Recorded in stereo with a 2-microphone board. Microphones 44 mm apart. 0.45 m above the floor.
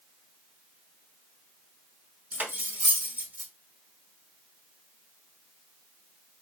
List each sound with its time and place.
2.3 s cutlery clinking: 40° right (ahead or behind), 1.0 m